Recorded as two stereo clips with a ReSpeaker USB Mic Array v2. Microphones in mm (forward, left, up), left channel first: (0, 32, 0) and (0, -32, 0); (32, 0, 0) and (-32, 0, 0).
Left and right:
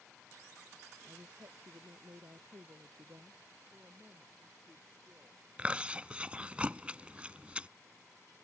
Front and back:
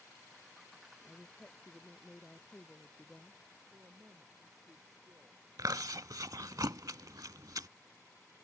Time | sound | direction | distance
1.1 | a woman speaking | 70° right | ?
3.7 | a woman speaking | 140° right | ?
5.6 | chewing | 160° right | ?